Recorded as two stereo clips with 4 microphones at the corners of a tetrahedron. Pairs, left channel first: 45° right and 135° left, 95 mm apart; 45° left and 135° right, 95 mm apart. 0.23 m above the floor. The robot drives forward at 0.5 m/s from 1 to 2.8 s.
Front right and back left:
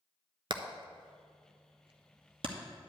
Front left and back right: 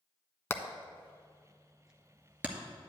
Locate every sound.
0.5 s hammering: 110° left, 0.5 m; by 2.6 s 150° left, 1.1 m